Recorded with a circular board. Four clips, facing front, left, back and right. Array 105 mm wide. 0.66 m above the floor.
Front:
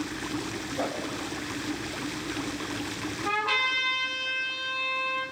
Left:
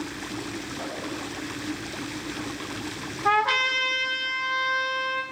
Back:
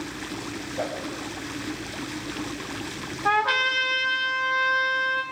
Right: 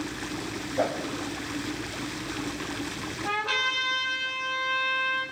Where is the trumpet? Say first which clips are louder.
Left 8 dB, back 7 dB; 155° left, 4 m.